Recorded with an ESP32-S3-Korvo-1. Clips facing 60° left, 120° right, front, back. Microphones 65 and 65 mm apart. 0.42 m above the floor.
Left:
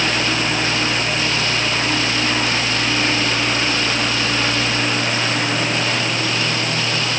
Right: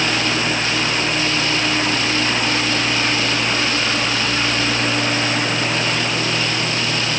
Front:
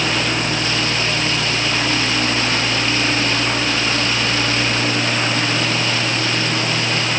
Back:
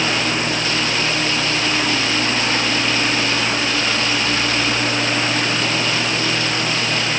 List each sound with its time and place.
Only background noise.